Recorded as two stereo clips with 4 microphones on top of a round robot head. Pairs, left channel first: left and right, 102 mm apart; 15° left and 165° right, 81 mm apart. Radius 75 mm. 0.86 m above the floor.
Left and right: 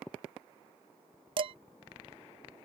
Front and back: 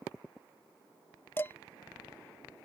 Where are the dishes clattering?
55° right.